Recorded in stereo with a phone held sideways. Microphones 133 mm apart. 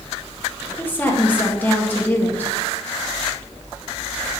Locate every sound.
0.8 s a woman speaking: 15° left (ahead or behind), 1.8 m